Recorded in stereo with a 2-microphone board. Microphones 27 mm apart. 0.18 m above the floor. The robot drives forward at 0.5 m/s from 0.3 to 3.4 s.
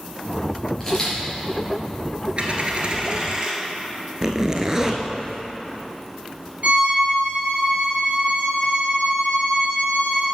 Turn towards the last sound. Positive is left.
turn(degrees=-65)  # may be behind; listen again after turning